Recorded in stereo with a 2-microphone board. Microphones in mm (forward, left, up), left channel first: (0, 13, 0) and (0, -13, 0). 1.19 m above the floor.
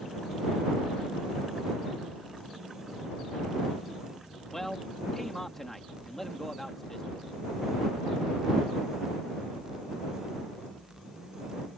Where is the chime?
No chime in this recording.